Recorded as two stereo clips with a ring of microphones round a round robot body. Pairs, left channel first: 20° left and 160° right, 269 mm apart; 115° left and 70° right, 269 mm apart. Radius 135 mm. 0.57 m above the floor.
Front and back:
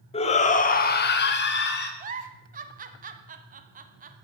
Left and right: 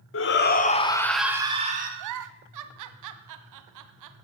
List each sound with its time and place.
0.1 s a shout: 85° left, 1.7 m; by 1.9 s 20° right, 1.7 m
2.0 s a giggle: 95° right, 1.0 m